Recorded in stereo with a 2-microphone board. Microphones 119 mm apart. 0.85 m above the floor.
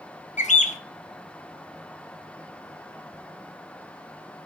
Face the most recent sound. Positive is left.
turn(degrees=80)